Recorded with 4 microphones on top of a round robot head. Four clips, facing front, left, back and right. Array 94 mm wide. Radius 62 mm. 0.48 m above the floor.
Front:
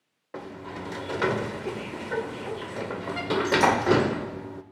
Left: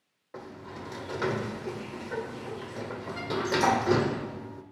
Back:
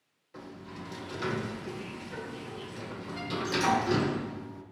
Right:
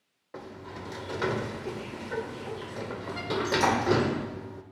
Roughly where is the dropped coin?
I don't hear a dropped coin.